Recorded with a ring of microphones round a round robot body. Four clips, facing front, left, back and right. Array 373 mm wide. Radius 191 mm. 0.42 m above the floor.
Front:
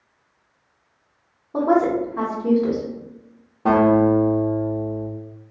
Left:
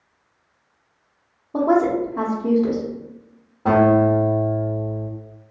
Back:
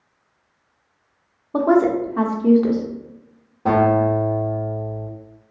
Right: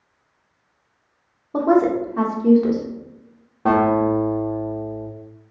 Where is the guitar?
75° right, 1.4 m.